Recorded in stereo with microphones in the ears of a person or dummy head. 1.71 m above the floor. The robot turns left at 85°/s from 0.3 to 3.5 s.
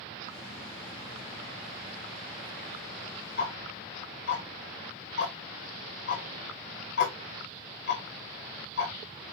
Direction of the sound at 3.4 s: 40° left (ahead or behind).